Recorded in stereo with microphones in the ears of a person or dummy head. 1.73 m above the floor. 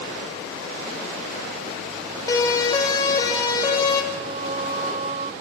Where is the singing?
30° right (ahead or behind), 1.1 m.